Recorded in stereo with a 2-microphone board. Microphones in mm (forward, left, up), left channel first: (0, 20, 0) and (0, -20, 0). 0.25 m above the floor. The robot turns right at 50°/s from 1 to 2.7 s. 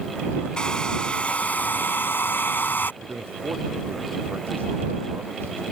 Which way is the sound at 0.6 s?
25° left.